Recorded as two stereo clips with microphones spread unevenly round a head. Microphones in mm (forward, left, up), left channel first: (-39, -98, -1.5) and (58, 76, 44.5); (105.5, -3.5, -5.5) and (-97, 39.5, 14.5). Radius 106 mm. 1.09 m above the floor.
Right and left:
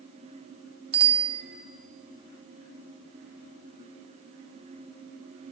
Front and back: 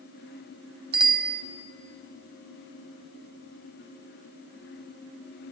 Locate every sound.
0.9 s a bicycle bell: 125° left, 2 m